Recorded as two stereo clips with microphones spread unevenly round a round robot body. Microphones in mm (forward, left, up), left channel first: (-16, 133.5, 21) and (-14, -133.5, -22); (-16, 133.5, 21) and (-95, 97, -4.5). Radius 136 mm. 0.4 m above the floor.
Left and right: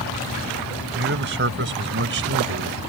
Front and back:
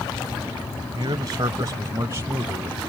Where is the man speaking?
125° right; by 2.8 s 100° right.